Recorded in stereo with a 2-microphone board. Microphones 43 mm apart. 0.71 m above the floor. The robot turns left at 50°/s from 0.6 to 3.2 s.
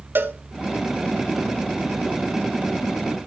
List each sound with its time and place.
0.1 s a cowbell: 60° right (ahead or behind), 1.6 m